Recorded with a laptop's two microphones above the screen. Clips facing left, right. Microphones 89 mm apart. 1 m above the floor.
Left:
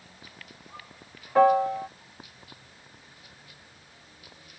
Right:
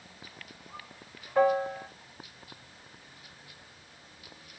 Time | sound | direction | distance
1.4 | a piano | 80° left | 0.7 m